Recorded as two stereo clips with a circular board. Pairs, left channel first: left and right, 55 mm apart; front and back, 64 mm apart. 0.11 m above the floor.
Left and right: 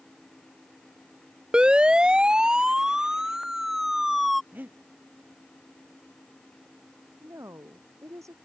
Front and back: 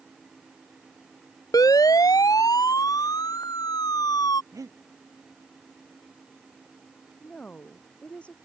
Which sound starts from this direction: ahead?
A siren, at 1.5 s.